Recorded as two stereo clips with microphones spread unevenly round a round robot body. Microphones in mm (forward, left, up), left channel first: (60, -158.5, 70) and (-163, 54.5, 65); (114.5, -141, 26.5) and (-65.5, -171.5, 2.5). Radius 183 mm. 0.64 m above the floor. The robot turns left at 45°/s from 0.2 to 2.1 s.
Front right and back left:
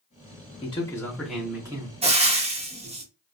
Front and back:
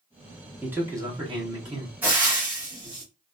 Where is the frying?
155° left, 0.6 m; by 3.0 s 150° left, 0.6 m.